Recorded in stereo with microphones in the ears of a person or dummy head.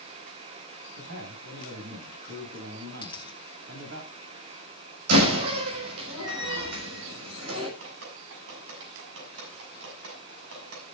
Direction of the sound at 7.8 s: 75° right (ahead or behind).